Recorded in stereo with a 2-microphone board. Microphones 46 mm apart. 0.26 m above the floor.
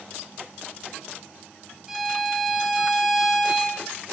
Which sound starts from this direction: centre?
A violin, at 1.9 s.